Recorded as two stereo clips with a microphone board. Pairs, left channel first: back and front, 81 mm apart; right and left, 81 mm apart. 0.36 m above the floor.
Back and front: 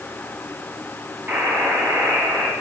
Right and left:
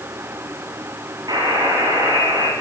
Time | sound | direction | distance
1.3 | a buzzer | 65° left | 3 m